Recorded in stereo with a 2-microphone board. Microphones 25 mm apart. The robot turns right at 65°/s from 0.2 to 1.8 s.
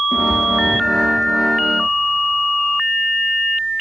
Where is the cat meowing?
20° left (ahead or behind), 3.5 m; by 1.1 s 75° left (ahead or behind), 3.5 m.